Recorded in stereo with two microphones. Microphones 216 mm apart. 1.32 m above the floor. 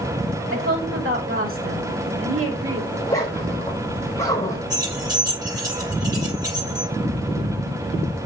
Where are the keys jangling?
20° right (ahead or behind), 6.5 m.